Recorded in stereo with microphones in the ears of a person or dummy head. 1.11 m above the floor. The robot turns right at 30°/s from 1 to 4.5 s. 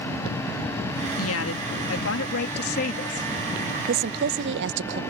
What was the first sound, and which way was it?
A woman speaking, 80° left.